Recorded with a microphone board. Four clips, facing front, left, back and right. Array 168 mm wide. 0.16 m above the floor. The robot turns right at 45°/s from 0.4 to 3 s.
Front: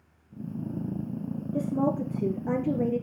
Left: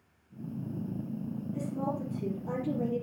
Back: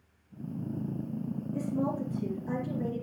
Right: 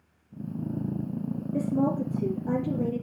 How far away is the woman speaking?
About 3.5 m.